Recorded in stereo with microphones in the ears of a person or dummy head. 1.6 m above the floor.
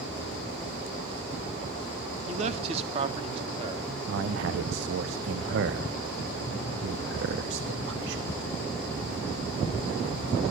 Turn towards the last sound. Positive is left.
turn(degrees=-70)  # may be behind; listen again after turning